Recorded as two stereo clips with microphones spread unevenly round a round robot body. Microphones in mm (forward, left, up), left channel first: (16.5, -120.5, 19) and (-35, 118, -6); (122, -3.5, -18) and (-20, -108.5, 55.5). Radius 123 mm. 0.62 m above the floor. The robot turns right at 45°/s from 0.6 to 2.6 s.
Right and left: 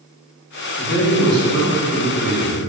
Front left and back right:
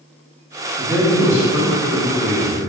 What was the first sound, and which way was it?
A man speaking, 55° right.